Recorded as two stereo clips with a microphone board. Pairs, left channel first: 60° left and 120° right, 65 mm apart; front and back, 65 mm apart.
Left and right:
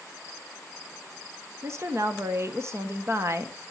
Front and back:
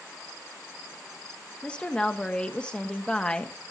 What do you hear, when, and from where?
1.6 s a woman speaking: 75° right, 1.2 m